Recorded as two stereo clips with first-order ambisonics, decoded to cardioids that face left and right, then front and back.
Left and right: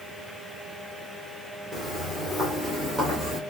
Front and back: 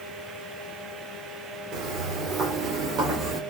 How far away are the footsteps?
About 2.5 m.